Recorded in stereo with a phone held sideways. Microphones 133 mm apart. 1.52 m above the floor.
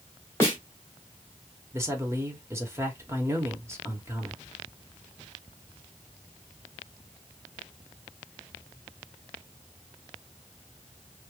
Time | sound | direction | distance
0.4 | a snare drum | 20° left (ahead or behind) | 1.3 m
1.7 | a man speaking | 20° right (ahead or behind) | 1.0 m